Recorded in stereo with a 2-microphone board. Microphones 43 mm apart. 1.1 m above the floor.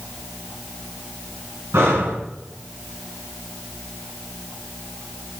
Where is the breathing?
75° right (ahead or behind), 5.5 m.